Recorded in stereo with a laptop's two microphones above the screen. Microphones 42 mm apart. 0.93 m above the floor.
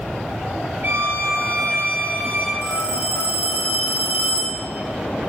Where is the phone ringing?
45° right (ahead or behind), 1.2 m.